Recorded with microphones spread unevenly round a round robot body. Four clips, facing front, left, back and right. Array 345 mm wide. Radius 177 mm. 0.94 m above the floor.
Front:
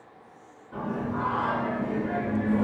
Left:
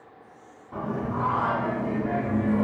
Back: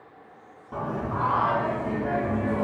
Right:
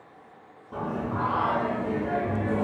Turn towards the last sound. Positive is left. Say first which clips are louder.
# even, back 1 dB
turn(degrees=-155)